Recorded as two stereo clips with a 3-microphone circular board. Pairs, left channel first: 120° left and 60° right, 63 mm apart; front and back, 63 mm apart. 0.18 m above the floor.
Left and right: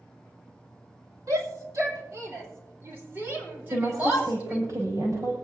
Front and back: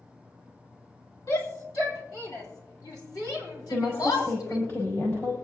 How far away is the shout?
About 5.5 m.